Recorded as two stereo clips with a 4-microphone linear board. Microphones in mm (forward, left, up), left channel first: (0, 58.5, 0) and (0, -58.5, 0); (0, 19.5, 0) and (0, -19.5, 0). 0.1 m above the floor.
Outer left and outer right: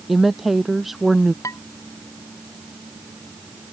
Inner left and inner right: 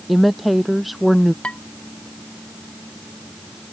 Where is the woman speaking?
Centre (ahead or behind).